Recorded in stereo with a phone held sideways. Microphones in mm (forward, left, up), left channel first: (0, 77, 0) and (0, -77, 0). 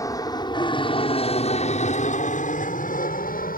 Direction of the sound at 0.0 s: 20° left (ahead or behind).